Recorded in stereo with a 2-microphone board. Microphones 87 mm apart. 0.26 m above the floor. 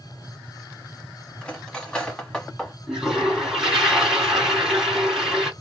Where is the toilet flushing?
5° right (ahead or behind), 1.6 m.